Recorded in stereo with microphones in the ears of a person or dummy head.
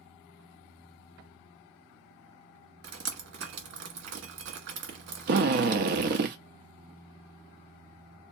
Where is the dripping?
65° right (ahead or behind), 1.7 m.